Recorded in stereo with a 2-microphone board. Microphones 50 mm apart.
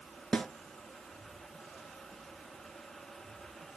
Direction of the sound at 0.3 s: 15° left (ahead or behind).